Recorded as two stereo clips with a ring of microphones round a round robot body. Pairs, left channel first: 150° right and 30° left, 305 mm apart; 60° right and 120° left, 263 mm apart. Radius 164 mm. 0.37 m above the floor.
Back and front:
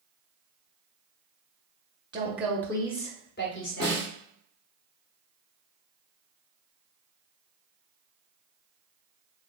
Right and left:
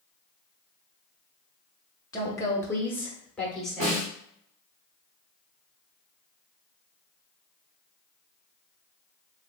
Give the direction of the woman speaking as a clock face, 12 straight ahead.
12 o'clock.